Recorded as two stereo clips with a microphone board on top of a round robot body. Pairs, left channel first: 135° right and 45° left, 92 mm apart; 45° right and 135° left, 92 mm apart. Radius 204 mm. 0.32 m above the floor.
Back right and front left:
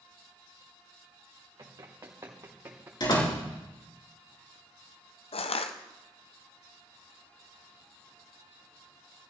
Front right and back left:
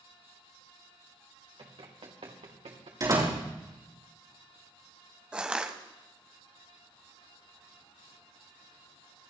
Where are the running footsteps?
100° left, 3 m; by 2.9 s 115° left, 3.5 m.